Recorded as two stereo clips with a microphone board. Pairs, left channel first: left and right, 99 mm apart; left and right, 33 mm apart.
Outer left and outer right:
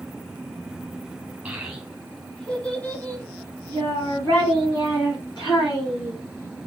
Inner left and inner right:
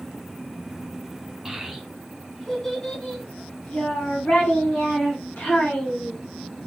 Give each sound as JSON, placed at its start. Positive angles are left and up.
{"t": 1.4, "sound": "a child speaking", "side_deg": -10, "distance_m": 1.4}